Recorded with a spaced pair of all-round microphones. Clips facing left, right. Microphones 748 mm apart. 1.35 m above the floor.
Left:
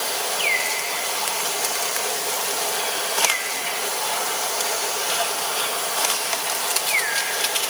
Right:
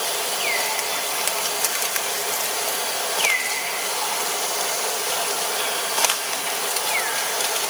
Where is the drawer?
I don't hear a drawer.